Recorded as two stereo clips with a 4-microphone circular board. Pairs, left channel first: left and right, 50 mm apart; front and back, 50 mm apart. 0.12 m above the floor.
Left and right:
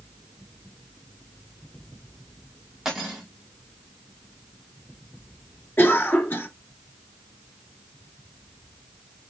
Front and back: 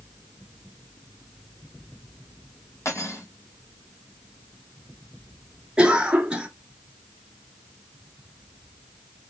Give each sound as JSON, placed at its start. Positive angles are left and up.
{"t": 2.9, "sound": "cutlery clinking", "azimuth_deg": -5, "distance_m": 3.0}
{"t": 5.8, "sound": "a cough", "azimuth_deg": 120, "distance_m": 1.7}